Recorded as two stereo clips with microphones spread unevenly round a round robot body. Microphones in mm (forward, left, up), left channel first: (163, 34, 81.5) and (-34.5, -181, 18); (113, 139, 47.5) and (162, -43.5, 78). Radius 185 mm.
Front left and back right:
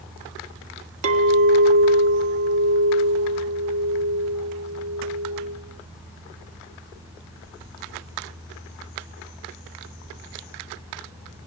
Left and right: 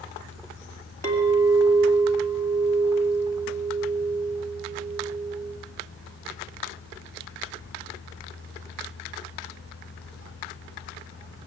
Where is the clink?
175° right, 2.0 m.